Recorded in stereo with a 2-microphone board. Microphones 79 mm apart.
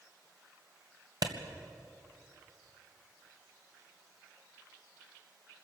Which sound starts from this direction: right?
A clap, at 1.2 s.